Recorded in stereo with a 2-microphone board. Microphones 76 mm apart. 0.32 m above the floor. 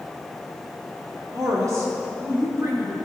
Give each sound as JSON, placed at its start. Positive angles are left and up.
{"t": 1.3, "sound": "a woman speaking", "side_deg": -50, "distance_m": 4.0}